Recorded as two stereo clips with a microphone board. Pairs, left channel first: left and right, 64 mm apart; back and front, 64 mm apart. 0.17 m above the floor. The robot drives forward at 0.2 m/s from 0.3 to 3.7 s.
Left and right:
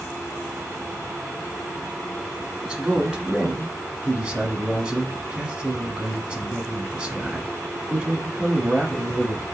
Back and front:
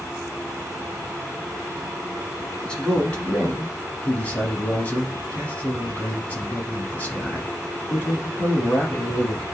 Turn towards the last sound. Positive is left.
turn(degrees=-150)